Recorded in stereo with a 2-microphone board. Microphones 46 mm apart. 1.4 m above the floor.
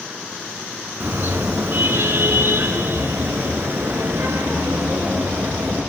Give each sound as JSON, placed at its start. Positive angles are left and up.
{"t": 1.0, "sound": "a car horn", "side_deg": -45, "distance_m": 9.0}